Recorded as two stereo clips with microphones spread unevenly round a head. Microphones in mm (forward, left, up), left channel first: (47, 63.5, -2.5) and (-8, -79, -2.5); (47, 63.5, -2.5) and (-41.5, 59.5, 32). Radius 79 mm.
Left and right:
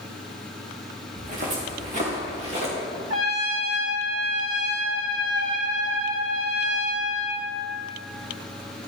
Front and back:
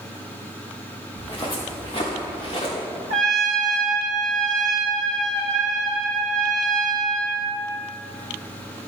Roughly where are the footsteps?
Right.